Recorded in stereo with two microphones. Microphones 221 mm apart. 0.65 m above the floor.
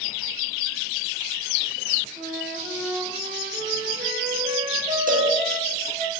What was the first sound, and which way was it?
A flute, 30° right (ahead or behind).